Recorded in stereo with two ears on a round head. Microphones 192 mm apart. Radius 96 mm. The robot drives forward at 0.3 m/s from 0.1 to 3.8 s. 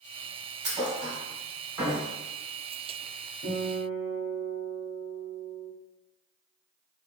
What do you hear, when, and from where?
0.6 s a thud: 15° right (ahead or behind), 1.7 m; by 2.1 s 20° right (ahead or behind), 1.3 m
3.4 s a guitar: 35° left (ahead or behind), 1.7 m